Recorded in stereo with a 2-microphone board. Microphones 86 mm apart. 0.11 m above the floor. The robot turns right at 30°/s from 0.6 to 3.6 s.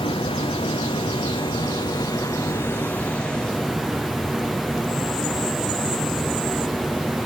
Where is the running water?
90° left, 1.0 m; by 7.3 s straight behind, 1.0 m.